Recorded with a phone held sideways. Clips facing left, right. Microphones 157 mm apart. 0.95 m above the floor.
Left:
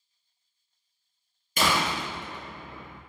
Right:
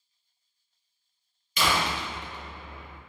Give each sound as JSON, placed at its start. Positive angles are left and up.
{"t": 1.6, "sound": "a door slam", "side_deg": 50, "distance_m": 0.6}